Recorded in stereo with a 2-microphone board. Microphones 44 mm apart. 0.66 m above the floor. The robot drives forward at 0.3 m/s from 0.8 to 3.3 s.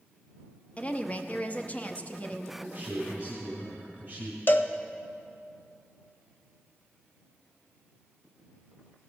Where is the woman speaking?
30° left (ahead or behind), 0.7 m.